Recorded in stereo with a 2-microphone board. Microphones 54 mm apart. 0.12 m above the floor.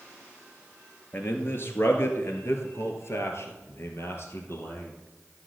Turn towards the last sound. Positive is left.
turn(degrees=50)  # may be behind; listen again after turning